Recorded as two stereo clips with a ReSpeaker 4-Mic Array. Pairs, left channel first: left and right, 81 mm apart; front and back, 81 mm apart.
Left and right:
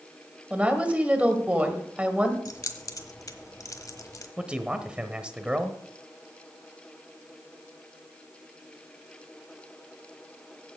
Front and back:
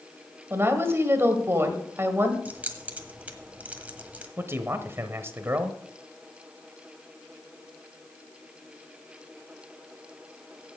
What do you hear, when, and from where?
0.5 s a woman speaking: 150° right, 1.6 m
2.5 s keys jangling: 110° left, 1.3 m
4.4 s a man speaking: 155° right, 1.1 m